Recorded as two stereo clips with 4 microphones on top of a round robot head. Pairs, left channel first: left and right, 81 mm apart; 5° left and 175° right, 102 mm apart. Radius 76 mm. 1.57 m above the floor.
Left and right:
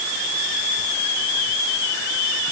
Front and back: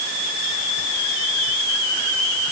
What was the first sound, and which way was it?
Only background noise.